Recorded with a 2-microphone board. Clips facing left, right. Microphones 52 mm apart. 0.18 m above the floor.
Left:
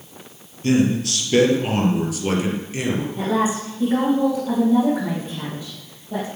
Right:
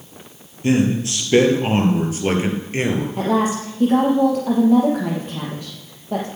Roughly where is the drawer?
I don't hear a drawer.